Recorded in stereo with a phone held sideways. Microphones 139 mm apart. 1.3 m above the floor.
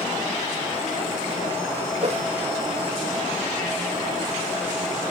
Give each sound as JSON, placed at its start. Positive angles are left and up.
{"t": 2.0, "sound": "a whoosh", "side_deg": -55}